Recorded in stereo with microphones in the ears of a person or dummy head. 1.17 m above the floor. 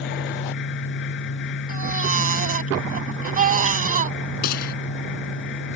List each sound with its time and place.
0.0 s a fan: 60° left (ahead or behind)
1.7 s a baby crying: 45° right (ahead or behind)
4.4 s a gunshot: 55° left (ahead or behind)